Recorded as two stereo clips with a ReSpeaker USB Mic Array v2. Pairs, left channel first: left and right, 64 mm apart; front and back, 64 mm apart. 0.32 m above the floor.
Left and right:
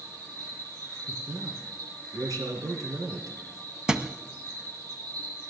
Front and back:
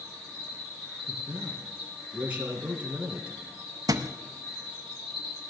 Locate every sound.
0.0 s an insect: 85° right, 7.5 m
1.1 s a man speaking: 110° right, 3.5 m
3.9 s a thud: 170° right, 0.8 m